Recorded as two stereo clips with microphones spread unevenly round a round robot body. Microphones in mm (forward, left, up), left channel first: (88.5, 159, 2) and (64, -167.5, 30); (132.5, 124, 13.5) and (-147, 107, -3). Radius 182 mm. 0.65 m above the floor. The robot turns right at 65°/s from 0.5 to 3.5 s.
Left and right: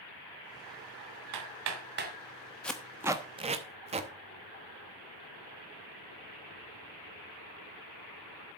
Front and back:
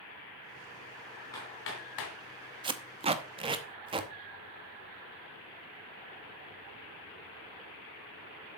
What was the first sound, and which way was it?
Hammering, 80° right.